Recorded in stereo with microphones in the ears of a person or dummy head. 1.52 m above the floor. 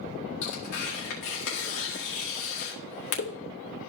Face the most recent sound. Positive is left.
turn(degrees=60)  # may be behind; listen again after turning